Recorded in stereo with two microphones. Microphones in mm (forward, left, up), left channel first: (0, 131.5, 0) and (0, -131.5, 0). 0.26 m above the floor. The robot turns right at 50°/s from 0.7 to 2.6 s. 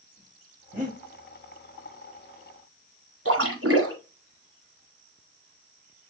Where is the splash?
65° right (ahead or behind), 1.6 m.